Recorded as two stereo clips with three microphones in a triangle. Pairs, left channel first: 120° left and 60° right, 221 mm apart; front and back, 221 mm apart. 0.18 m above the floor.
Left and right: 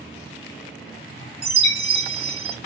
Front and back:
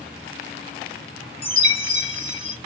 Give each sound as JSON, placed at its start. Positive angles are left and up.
{"t": 1.4, "sound": "a chime", "azimuth_deg": 15, "distance_m": 1.5}